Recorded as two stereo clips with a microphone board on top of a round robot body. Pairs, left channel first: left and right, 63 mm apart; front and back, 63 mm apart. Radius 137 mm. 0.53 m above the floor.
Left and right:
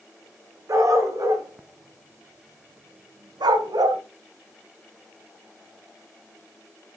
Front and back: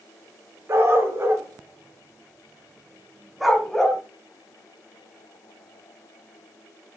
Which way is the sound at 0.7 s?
130° right.